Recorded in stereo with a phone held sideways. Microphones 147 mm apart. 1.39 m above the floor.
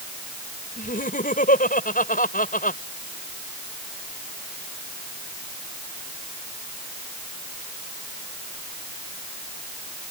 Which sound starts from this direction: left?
Laughter, at 0.8 s.